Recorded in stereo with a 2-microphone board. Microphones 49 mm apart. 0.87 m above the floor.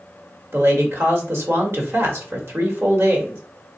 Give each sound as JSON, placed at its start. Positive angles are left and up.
{"t": 0.5, "sound": "a man speaking", "side_deg": -60, "distance_m": 1.5}